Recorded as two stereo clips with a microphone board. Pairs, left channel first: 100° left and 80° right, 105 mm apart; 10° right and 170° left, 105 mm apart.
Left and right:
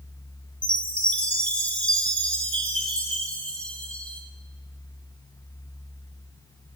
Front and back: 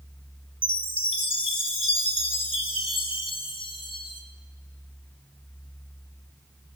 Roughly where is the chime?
Ahead.